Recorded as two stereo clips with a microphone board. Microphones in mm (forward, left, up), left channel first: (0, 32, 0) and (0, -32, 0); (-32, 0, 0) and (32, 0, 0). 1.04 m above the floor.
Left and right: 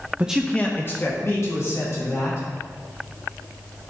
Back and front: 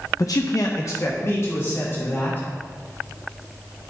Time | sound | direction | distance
0.2 | a man speaking | 150° right | 0.5 m